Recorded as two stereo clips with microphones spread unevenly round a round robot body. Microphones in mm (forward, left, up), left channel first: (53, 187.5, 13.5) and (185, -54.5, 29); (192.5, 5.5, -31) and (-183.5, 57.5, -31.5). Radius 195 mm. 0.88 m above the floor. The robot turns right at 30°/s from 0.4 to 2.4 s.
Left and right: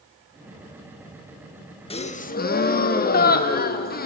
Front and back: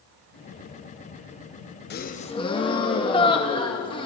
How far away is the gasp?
About 0.7 m.